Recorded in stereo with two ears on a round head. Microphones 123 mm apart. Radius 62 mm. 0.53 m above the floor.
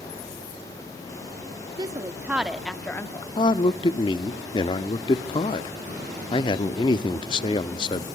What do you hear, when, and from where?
1.8 s a woman speaking: 30° right (ahead or behind), 1.0 m; by 3.3 s 25° left (ahead or behind), 1.0 m
3.4 s a man speaking: 35° left (ahead or behind), 0.8 m